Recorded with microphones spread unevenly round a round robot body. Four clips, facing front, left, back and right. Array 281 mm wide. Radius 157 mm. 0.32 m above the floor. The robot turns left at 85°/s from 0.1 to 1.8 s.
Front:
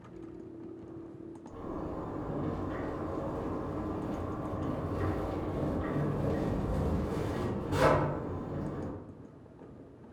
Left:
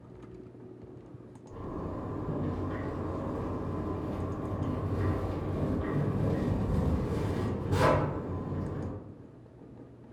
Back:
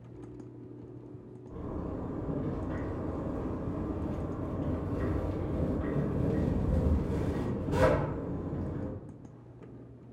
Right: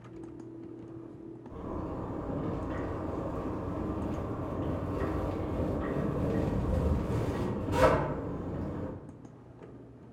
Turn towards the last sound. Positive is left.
turn(degrees=155)